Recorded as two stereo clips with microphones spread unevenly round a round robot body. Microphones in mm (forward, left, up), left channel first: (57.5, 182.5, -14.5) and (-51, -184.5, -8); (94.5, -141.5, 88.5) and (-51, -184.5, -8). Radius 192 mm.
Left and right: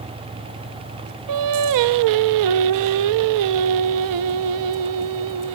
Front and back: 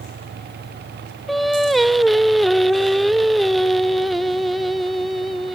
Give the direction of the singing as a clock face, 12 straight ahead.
2 o'clock.